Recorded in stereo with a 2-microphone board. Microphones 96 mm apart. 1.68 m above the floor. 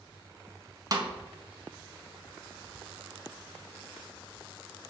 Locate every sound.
0.9 s a snare drum: 40° right (ahead or behind), 0.5 m